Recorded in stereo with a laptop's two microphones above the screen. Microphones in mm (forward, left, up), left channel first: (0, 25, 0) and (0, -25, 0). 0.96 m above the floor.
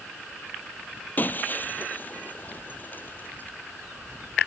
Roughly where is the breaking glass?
Left.